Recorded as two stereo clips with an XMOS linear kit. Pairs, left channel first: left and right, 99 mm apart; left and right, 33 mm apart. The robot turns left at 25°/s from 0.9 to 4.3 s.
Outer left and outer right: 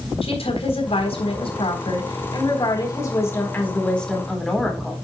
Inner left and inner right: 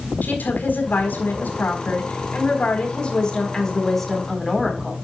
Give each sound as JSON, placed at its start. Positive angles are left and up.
{"t": 0.2, "sound": "a woman speaking", "azimuth_deg": 85, "distance_m": 4.0}